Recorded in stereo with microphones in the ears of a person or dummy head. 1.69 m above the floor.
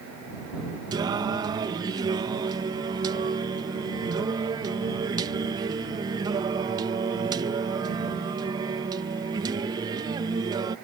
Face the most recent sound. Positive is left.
turn(degrees=-20)  # may be behind; listen again after turning